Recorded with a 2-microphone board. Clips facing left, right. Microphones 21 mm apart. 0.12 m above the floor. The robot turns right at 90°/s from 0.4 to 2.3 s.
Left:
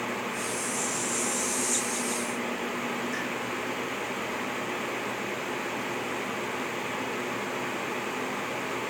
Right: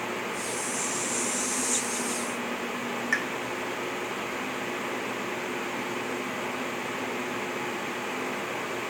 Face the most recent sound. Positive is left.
turn(degrees=-80)